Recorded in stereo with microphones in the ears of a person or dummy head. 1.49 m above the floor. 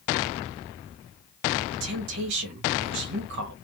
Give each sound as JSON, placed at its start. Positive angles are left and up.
{"t": 1.7, "sound": "a woman speaking", "side_deg": -75, "distance_m": 1.3}